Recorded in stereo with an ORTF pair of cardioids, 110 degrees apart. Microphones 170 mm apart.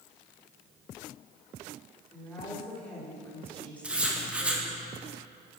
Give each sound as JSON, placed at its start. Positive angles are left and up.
{"t": 2.1, "sound": "a woman speaking", "azimuth_deg": 10, "distance_m": 5.0}
{"t": 3.8, "sound": "writing", "azimuth_deg": -5, "distance_m": 1.9}